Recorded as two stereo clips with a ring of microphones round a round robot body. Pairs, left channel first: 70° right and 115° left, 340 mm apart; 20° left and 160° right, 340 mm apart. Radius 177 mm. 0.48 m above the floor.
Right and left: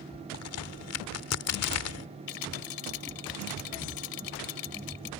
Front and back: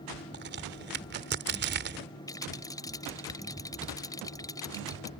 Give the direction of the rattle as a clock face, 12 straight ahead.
2 o'clock.